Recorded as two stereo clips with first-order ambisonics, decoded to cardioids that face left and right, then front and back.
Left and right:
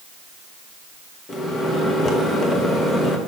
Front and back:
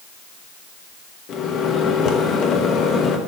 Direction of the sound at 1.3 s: 30° left.